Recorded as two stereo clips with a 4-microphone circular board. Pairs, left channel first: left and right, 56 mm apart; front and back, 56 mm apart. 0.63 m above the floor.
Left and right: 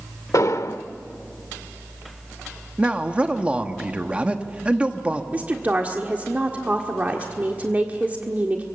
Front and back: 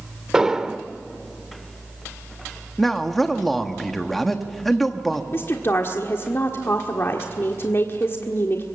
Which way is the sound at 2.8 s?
80° right.